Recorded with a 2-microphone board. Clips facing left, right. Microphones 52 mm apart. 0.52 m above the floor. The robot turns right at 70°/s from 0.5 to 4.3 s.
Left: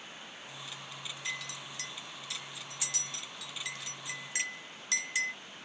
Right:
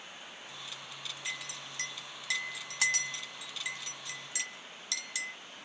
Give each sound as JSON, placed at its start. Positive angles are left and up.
{"t": 1.2, "sound": "a clink", "side_deg": -5, "distance_m": 1.9}